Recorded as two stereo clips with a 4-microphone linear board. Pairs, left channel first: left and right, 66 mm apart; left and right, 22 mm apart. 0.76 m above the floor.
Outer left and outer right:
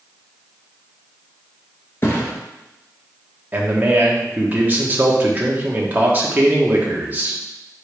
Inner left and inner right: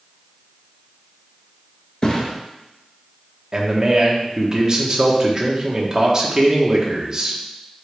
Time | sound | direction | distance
2.0 | a thud | 40° left (ahead or behind) | 1.6 m
3.5 | a man speaking | 30° right (ahead or behind) | 1.2 m